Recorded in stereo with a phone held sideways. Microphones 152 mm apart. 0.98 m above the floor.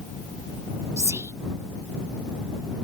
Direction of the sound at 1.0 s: 20° right (ahead or behind).